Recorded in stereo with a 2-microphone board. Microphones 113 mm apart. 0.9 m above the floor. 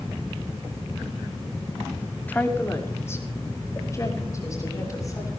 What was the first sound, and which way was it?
A woman speaking, 15° left (ahead or behind).